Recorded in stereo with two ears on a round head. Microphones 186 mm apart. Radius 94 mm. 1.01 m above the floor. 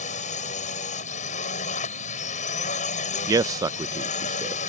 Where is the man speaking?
15° right (ahead or behind).